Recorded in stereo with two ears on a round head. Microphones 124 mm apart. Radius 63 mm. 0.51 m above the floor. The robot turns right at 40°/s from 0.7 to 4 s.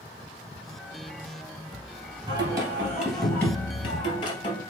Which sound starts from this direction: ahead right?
Singing, at 2.3 s.